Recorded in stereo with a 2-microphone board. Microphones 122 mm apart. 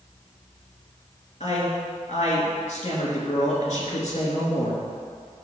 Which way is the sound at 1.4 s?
60° left (ahead or behind).